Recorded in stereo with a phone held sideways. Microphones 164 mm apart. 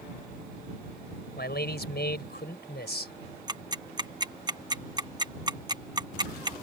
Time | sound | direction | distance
1.4 | a man speaking | 85° left | ?
3.5 | ticking | 25° right (ahead or behind) | ?